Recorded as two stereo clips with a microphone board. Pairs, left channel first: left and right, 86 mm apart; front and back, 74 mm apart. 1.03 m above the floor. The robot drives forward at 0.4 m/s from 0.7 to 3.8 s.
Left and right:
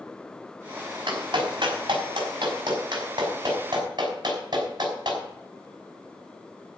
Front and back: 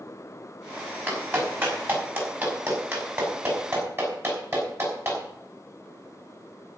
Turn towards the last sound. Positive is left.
turn(degrees=-125)